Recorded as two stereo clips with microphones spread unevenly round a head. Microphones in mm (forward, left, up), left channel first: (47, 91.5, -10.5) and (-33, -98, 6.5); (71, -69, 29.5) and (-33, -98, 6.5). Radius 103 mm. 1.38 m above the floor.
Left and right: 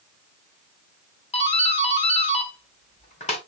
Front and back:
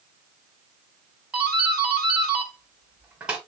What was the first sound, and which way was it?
A doorbell, 120° left.